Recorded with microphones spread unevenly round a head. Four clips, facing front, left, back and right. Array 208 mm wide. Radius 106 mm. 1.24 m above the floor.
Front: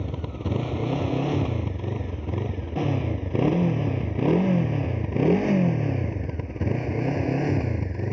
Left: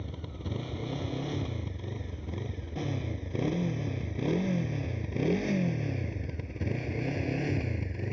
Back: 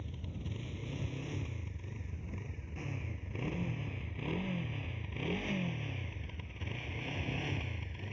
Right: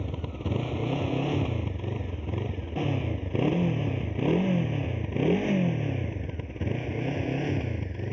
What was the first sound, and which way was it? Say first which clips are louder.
A motorcycle: right 6 dB, front 15 dB; 25° right.